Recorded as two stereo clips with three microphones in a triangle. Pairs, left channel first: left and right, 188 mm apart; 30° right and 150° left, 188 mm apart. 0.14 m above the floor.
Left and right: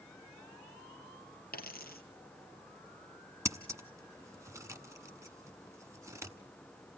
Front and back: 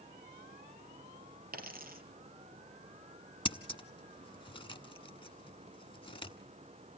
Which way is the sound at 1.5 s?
120° left.